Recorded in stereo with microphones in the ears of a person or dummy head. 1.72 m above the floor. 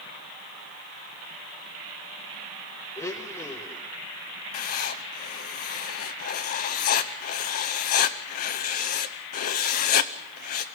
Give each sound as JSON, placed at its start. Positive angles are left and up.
{"t": 3.0, "sound": "a blender", "side_deg": 10, "distance_m": 0.9}
{"t": 4.5, "sound": "writing", "side_deg": 45, "distance_m": 0.8}